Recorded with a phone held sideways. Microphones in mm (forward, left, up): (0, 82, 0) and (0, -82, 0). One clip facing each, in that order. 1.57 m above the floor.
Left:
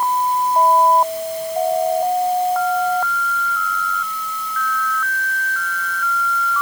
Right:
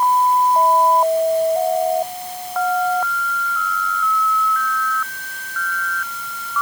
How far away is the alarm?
I don't hear an alarm.